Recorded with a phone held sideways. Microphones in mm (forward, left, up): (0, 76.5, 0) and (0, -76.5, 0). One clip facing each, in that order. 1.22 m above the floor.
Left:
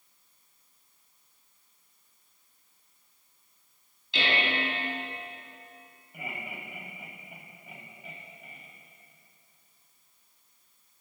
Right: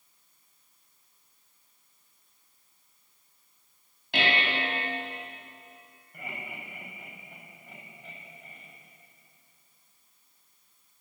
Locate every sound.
4.1 s dishes clattering: 60° right (ahead or behind), 6.5 m
6.1 s laughter: 5° left (ahead or behind), 7.5 m